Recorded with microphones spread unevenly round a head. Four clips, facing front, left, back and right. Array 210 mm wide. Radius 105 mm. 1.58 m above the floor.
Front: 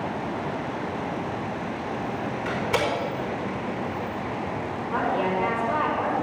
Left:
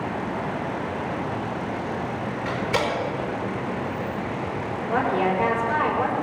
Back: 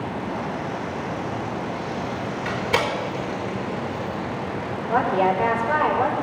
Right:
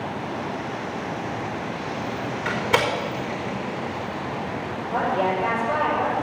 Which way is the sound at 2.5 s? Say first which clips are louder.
Right 3 dB, back 2 dB; 130° right.